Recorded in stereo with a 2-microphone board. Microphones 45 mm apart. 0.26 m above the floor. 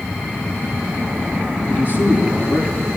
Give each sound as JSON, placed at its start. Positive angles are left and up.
{"t": 1.7, "sound": "a man speaking", "side_deg": 45, "distance_m": 5.5}